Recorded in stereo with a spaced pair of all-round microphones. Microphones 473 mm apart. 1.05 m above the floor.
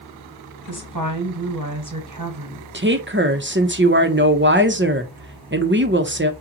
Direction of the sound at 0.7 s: 40° right (ahead or behind).